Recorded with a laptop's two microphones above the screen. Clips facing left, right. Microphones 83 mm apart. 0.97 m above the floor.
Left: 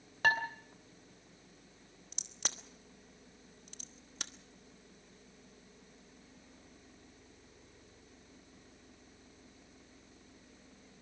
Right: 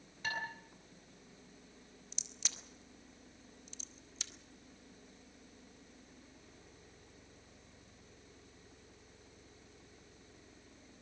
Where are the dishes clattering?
75° left (ahead or behind), 3 m.